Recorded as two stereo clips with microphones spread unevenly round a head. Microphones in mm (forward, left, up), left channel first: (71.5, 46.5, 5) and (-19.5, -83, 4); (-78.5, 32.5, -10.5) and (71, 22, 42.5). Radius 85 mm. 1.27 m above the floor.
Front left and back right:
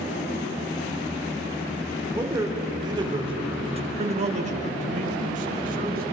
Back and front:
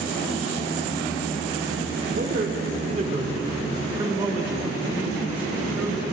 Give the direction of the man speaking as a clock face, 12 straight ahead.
2 o'clock.